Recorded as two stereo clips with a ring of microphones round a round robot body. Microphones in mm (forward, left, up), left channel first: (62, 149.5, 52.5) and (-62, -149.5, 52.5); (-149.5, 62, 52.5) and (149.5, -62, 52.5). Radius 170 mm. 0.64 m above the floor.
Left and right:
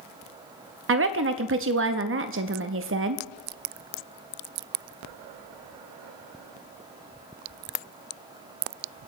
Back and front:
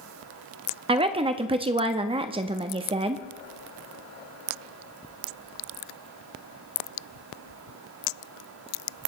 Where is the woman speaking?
90° right, 0.6 m.